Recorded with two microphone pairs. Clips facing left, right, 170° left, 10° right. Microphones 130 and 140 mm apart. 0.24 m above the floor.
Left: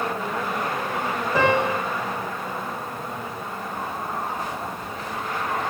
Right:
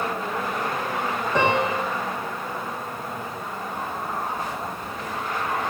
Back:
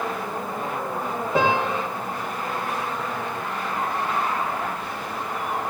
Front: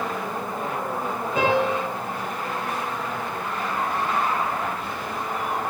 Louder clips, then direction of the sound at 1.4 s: Left 1 dB, front 1 dB; 175° left.